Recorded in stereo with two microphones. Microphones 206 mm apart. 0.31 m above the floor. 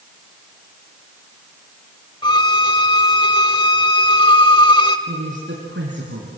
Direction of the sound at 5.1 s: 65° right (ahead or behind).